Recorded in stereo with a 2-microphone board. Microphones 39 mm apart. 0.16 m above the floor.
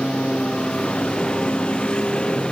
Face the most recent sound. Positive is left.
turn(degrees=25)  # may be behind; listen again after turning